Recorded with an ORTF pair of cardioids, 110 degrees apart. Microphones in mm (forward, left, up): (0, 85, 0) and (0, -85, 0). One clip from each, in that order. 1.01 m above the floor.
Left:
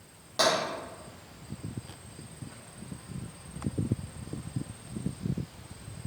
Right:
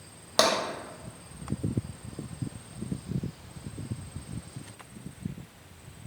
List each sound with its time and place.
0.4 s tapping: 55° right, 0.7 m